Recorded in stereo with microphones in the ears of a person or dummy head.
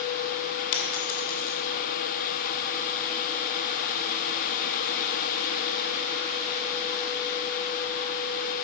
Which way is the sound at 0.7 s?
50° left (ahead or behind).